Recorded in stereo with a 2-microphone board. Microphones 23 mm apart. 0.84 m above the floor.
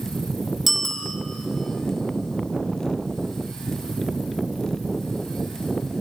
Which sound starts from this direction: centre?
A bicycle bell, at 0.7 s.